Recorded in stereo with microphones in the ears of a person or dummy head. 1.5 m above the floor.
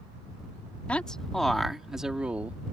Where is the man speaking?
5° left (ahead or behind); by 2.6 s 10° right (ahead or behind).